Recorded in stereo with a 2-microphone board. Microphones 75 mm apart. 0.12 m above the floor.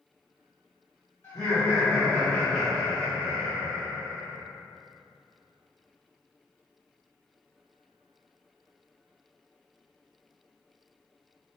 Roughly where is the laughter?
Left.